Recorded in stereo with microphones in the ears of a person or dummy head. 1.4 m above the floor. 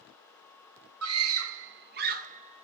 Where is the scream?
85° right, 1.8 m; by 2.6 s 35° right (ahead or behind), 2 m.